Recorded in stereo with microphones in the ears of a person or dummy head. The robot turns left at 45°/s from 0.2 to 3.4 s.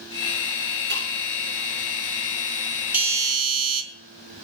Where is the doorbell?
5° right (ahead or behind), 2.5 m; by 3.8 s 25° right (ahead or behind), 2.5 m.